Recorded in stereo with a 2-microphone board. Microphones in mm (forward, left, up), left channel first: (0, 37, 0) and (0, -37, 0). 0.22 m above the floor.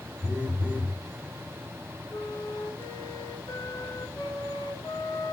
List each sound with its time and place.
0.2 s a phone buzzing: 20° right (ahead or behind), 3.5 m
2.1 s a flute: 55° left (ahead or behind), 1.2 m